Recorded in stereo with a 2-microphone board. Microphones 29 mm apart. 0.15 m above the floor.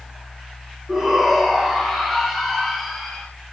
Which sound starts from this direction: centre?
A shout, at 0.9 s.